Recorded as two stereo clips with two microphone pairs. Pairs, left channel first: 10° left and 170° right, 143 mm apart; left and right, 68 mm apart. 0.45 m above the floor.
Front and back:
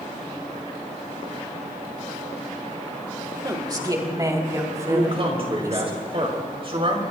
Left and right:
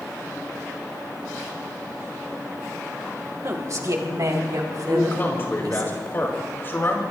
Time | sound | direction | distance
3.4 | a woman speaking | 115° right | 2 m
4.9 | a man speaking | 145° left | 4.5 m